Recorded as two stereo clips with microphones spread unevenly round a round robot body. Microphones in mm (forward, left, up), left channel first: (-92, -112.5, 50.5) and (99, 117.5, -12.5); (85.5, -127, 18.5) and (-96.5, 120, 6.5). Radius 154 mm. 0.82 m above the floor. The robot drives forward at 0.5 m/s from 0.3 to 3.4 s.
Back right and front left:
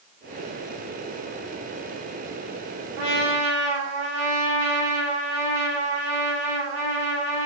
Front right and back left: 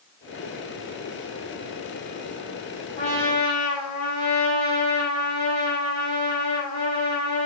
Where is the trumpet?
10° left, 7.5 m.